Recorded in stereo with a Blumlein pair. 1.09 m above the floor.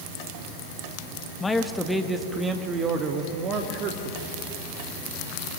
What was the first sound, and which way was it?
A man speaking, 15° left.